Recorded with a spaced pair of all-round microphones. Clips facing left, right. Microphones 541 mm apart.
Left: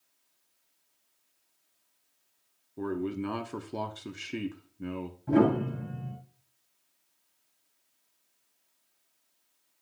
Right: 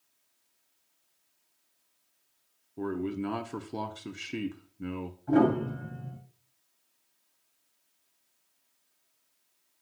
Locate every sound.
2.8 s a man speaking: centre (ahead or behind), 0.8 m
5.3 s a piano: 45° left (ahead or behind), 6.5 m